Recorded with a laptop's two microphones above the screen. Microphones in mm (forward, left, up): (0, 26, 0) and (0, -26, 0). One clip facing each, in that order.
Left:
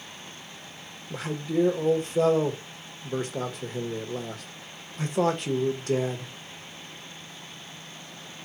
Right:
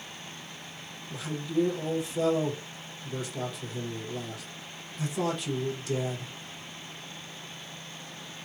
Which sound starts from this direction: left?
A man speaking, at 1.1 s.